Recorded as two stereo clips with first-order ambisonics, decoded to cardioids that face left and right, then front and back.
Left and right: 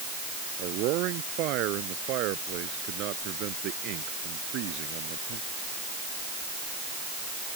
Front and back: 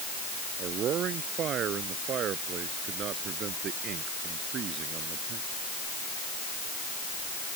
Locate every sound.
0.6 s a man speaking: 125° right